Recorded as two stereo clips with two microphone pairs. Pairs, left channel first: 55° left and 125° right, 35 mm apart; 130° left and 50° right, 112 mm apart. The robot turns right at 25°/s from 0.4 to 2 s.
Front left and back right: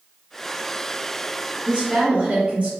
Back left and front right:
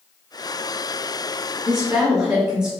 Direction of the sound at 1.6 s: 140° right.